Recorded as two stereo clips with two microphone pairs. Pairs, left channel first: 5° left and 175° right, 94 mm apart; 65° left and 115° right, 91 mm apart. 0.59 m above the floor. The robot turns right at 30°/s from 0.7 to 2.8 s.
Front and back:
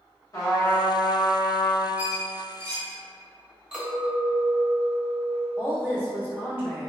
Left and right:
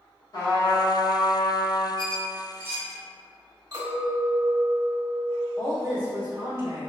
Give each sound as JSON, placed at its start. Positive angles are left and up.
{"t": 0.3, "sound": "a trumpet", "azimuth_deg": 40, "distance_m": 0.9}
{"t": 2.0, "sound": "a squeak", "azimuth_deg": 115, "distance_m": 0.8}
{"t": 3.7, "sound": "a clink", "azimuth_deg": -95, "distance_m": 1.6}
{"t": 5.6, "sound": "a woman speaking", "azimuth_deg": -120, "distance_m": 1.7}